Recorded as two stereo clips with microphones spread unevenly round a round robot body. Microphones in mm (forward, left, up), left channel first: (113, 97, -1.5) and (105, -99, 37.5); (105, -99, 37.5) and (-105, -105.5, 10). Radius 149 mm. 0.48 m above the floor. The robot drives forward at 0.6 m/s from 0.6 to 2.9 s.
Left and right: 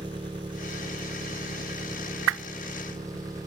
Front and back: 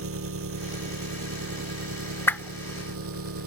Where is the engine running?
165° right; by 3.5 s 170° right.